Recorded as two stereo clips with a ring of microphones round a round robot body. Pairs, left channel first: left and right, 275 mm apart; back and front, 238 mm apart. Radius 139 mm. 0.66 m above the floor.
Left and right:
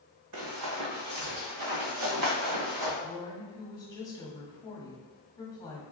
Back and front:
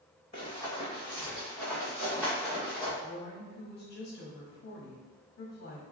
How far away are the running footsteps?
About 1.6 m.